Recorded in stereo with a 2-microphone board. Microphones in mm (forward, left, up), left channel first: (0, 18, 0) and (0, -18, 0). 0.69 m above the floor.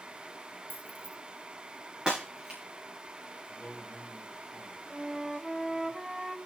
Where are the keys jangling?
75° left (ahead or behind), 4.5 m.